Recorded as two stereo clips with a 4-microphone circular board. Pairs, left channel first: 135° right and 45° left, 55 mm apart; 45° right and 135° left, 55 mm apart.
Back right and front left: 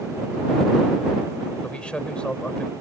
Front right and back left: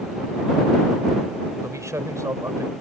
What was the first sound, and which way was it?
A man speaking, 155° left.